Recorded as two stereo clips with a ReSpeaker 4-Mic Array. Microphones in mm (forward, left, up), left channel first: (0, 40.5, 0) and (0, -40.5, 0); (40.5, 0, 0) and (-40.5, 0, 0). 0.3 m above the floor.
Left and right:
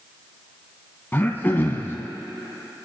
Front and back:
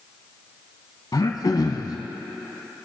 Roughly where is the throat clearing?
Ahead left.